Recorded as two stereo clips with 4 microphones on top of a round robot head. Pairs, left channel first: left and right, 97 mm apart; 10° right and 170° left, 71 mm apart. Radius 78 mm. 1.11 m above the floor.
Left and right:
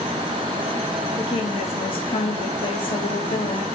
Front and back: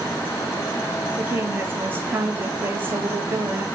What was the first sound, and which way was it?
A woman speaking, 110° left.